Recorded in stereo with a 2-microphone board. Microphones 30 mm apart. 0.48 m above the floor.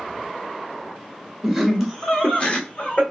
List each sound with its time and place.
1.4 s laughter: centre (ahead or behind), 2.0 m; by 3.0 s 45° left (ahead or behind), 1.6 m